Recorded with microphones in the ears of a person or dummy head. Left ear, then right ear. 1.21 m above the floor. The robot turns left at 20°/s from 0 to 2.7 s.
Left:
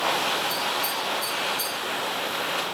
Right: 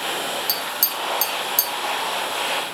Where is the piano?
I don't hear a piano.